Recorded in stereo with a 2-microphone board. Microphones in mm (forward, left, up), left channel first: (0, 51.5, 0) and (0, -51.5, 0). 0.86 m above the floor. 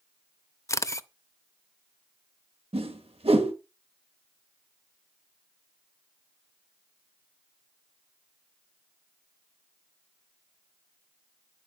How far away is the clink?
I don't hear a clink.